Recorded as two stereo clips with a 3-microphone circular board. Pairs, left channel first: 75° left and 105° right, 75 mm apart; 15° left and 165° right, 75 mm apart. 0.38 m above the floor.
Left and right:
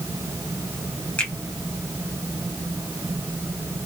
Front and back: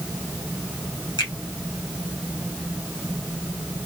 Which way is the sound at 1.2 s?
5° left.